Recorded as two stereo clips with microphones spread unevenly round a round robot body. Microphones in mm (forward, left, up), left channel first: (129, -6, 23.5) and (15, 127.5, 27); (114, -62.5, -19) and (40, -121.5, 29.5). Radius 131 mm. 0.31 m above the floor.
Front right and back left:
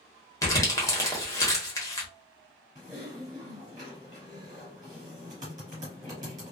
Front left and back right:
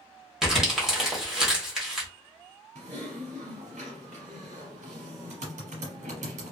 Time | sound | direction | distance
0.4 | crumpling | straight ahead | 1.2 m
2.8 | typing on a keyboard | 160° right | 0.8 m